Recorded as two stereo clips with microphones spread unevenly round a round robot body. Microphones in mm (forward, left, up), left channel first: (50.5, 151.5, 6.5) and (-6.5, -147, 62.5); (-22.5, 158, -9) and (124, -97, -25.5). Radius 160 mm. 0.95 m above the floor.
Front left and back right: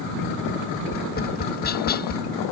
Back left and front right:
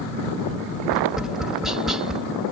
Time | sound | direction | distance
0.9 | tapping | 25° left | ?